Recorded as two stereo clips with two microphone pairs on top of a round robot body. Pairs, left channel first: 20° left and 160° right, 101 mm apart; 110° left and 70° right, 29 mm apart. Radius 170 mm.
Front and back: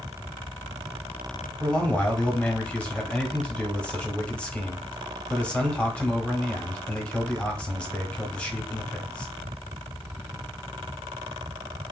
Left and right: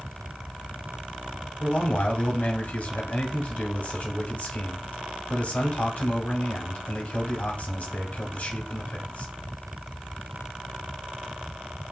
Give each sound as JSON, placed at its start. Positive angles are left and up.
{"t": 1.6, "sound": "a man speaking", "azimuth_deg": 95, "distance_m": 1.4}